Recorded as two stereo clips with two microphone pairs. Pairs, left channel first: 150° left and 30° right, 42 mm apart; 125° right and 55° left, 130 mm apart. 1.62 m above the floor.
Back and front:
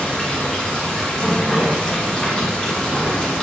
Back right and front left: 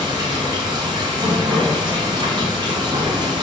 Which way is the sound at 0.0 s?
90° left.